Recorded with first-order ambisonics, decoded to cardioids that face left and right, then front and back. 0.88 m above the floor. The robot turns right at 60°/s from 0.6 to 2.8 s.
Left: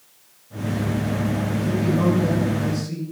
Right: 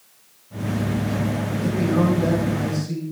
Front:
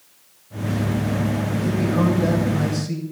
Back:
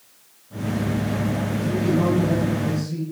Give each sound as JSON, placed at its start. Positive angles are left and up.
{"t": 1.6, "sound": "a man speaking", "azimuth_deg": -80, "distance_m": 5.0}